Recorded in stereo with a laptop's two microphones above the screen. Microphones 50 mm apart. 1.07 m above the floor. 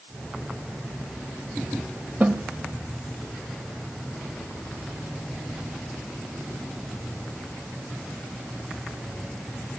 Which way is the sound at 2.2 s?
35° right (ahead or behind).